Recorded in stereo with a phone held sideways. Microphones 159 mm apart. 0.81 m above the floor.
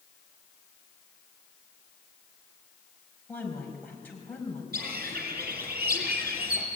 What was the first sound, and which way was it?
A woman speaking, 10° left (ahead or behind).